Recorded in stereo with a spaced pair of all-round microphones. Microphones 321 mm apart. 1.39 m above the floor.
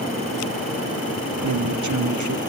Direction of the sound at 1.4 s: 70° right (ahead or behind).